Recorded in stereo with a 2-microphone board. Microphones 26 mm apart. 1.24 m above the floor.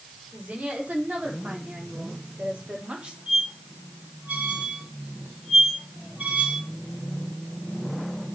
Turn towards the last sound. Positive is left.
turn(degrees=-70)  # may be behind; listen again after turning